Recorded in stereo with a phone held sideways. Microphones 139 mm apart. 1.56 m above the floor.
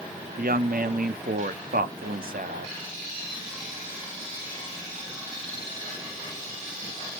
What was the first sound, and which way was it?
A woman speaking, 85° right.